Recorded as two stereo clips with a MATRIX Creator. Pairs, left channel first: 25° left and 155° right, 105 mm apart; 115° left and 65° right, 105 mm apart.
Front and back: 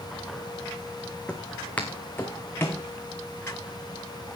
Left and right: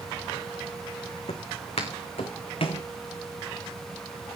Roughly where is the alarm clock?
I don't hear an alarm clock.